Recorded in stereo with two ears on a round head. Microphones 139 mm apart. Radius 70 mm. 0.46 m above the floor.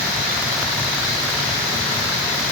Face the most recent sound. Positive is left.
No sound to turn to.